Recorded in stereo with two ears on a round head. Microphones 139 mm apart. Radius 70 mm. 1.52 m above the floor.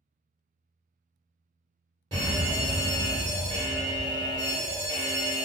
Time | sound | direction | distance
2.1 | a fire alarm | 35° right (ahead or behind) | 1.3 m